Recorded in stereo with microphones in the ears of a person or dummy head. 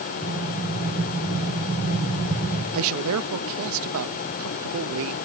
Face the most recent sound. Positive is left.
turn(degrees=-75)  # may be behind; listen again after turning